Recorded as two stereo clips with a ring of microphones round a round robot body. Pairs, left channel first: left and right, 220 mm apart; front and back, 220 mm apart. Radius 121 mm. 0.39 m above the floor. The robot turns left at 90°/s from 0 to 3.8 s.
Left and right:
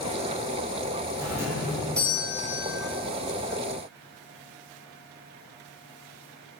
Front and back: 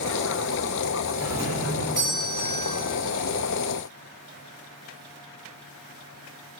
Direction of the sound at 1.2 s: 120° right.